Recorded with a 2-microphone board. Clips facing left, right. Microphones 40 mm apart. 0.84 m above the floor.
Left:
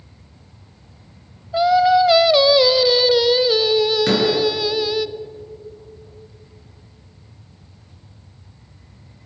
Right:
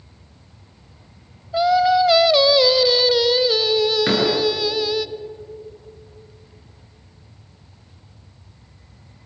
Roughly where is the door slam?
Centre.